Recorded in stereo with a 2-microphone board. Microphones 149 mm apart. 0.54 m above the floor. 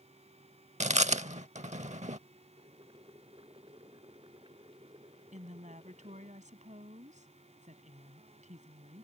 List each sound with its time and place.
0.8 s chewing: 50° right (ahead or behind)
2.6 s boiling: 30° right (ahead or behind)
5.3 s a woman speaking: 55° right (ahead or behind)